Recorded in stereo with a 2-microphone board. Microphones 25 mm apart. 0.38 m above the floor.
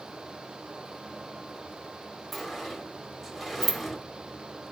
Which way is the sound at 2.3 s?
5° right (ahead or behind).